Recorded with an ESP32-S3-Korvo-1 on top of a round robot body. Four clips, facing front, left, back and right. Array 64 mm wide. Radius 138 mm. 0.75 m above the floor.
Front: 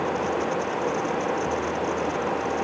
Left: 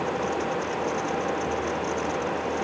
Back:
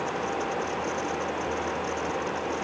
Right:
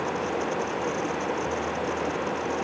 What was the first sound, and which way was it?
Only background noise.